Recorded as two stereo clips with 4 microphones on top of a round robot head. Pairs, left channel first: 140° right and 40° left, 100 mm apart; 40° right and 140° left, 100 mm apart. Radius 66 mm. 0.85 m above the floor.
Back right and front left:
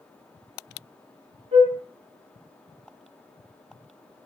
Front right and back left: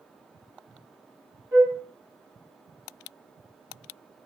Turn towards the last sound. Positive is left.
turn(degrees=65)